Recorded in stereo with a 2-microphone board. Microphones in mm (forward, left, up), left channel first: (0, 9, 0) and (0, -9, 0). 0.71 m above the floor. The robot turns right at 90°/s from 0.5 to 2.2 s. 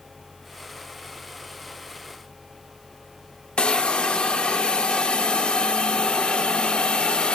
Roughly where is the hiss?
Left.